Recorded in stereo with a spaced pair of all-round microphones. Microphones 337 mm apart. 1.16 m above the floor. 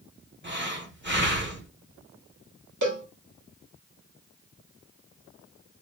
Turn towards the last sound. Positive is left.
turn(degrees=-65)  # may be behind; listen again after turning